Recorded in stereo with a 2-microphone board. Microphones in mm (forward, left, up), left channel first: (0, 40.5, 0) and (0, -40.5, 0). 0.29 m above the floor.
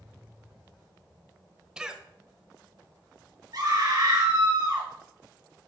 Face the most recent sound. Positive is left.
turn(degrees=-60)  # may be behind; listen again after turning